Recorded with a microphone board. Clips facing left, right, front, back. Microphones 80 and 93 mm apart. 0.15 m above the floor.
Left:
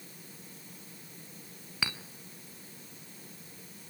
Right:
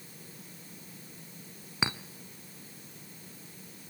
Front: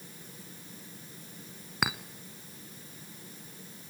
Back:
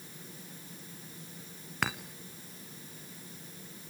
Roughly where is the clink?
Ahead right.